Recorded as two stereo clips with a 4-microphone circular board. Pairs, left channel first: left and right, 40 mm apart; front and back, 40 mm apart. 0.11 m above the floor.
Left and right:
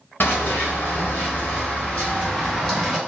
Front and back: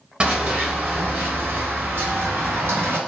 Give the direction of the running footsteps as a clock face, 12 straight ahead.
8 o'clock.